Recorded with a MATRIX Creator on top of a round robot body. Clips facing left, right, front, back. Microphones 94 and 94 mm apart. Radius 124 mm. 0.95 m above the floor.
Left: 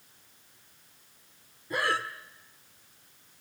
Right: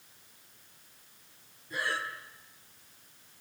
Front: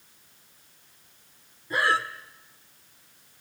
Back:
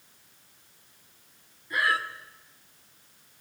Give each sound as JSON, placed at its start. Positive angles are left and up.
{"t": 1.7, "sound": "breathing", "azimuth_deg": 60, "distance_m": 1.4}